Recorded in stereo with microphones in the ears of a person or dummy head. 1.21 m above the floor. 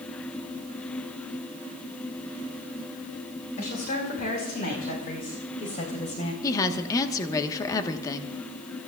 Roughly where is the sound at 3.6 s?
Left.